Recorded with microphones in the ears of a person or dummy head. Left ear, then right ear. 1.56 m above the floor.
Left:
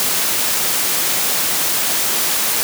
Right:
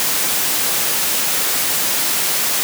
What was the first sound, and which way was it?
Only background noise.